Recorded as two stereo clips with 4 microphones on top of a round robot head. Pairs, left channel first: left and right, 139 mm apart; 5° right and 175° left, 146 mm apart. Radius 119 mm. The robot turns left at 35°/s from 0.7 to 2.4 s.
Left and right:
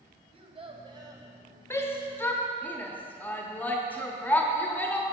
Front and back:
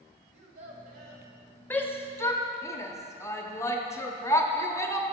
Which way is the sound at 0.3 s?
140° right.